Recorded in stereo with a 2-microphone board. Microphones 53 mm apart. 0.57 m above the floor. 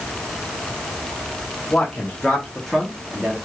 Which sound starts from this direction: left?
A man speaking, at 1.7 s.